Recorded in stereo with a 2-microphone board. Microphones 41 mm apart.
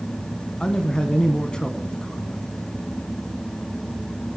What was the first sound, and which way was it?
A man speaking, 25° left (ahead or behind).